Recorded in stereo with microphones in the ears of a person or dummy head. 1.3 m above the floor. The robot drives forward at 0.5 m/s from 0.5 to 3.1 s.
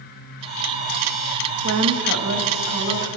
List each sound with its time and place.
1.6 s a woman speaking: 70° right (ahead or behind), 1.2 m; by 3.1 s 45° right (ahead or behind), 1.6 m